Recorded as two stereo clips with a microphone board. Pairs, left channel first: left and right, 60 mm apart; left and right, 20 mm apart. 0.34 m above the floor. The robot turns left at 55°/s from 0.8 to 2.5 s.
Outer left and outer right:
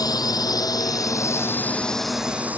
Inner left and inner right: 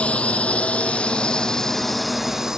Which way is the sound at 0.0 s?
80° left.